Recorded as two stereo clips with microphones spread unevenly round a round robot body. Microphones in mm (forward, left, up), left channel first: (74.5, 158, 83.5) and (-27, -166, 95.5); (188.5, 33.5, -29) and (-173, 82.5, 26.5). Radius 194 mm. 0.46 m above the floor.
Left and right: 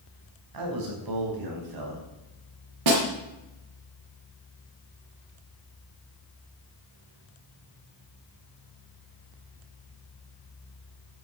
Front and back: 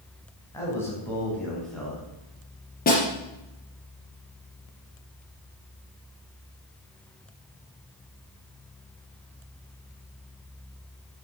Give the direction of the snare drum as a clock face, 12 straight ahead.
3 o'clock.